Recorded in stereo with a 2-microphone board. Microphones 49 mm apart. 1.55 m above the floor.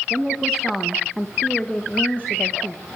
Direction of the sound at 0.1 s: 10° right (ahead or behind).